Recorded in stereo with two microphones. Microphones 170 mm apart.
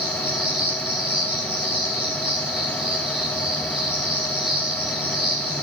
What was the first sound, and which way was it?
An insect, 75° left (ahead or behind).